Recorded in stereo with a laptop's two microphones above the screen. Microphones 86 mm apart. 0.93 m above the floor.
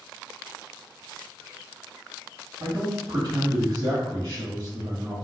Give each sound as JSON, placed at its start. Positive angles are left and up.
{"t": 2.6, "sound": "a man speaking", "side_deg": -45, "distance_m": 2.0}